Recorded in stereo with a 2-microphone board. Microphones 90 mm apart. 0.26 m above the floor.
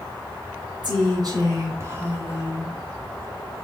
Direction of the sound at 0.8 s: 60° right (ahead or behind).